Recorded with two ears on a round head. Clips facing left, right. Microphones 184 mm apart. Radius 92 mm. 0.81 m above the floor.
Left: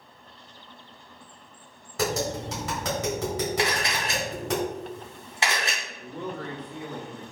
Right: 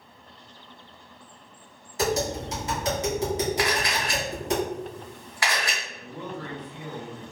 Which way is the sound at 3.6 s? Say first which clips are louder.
Right 1 dB; 20° left (ahead or behind).